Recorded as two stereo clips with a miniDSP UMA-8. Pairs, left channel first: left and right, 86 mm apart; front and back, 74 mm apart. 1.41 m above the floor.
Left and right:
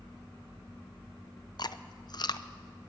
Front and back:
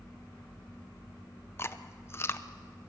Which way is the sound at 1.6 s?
55° left.